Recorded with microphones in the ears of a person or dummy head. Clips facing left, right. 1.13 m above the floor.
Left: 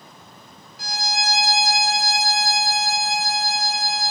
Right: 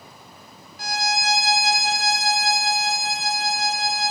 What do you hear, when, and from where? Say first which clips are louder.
0.8 s a violin: right 2 dB; 40° right (ahead or behind), 0.9 m